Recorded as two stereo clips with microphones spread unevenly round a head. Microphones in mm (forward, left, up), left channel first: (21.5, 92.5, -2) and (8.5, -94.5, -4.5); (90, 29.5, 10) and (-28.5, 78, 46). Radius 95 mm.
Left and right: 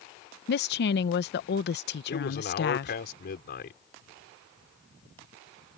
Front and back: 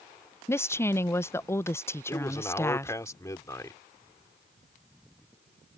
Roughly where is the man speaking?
Ahead left.